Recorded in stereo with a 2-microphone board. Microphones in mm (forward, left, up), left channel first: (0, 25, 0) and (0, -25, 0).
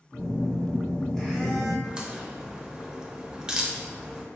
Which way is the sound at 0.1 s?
10° left (ahead or behind).